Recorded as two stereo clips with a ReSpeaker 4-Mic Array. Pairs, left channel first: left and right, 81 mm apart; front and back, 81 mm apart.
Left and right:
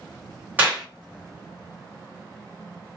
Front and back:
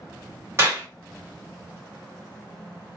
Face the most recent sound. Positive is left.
turn(degrees=-145)